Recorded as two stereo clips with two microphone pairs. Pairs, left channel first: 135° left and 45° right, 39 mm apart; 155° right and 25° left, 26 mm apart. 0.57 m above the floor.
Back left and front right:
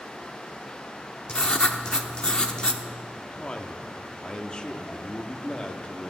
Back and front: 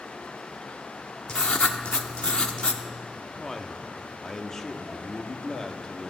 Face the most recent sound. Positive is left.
turn(degrees=170)